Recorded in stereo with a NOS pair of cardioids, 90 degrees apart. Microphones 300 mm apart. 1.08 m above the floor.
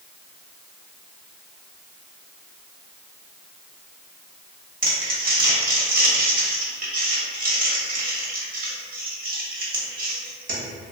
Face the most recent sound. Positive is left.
turn(degrees=-30)